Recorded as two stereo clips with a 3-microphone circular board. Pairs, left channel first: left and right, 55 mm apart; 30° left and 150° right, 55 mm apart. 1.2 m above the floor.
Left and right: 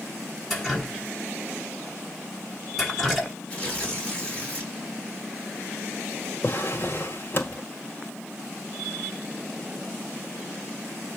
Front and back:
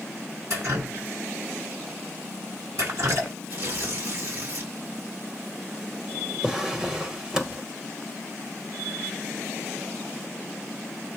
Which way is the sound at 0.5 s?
175° left.